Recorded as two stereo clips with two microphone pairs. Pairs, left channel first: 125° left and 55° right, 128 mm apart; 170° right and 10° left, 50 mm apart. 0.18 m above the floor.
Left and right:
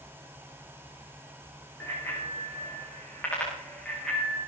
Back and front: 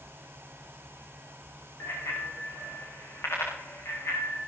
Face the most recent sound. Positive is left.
turn(degrees=-150)